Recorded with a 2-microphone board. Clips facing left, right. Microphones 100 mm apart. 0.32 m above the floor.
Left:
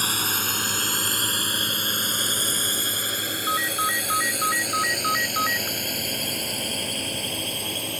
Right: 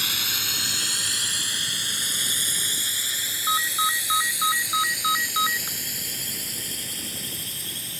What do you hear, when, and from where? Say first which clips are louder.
0.0 s a drone: left 6 dB; 40° left (ahead or behind); by 8.0 s 60° left (ahead or behind)
3.5 s a ringtone: right 1 dB; 5° right (ahead or behind)